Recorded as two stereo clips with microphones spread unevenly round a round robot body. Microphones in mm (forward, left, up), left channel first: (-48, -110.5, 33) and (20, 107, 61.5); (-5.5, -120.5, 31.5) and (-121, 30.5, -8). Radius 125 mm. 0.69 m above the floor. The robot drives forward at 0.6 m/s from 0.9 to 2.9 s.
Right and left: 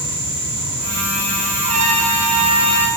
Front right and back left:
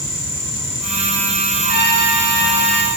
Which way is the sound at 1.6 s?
130° left.